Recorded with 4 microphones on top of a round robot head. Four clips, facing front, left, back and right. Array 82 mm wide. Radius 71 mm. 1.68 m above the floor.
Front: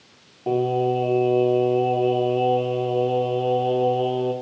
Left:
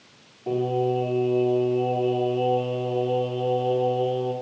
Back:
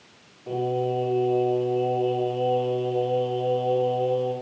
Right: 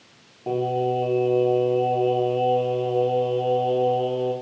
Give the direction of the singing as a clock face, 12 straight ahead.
1 o'clock.